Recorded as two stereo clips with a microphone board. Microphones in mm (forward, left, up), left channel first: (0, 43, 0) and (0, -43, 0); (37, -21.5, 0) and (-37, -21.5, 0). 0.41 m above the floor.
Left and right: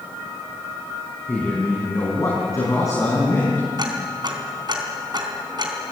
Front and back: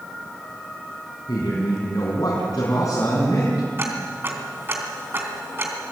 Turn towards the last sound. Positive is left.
turn(degrees=-120)